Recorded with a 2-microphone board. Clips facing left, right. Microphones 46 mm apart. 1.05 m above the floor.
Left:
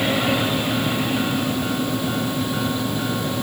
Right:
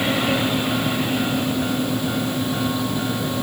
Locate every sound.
Only background noise.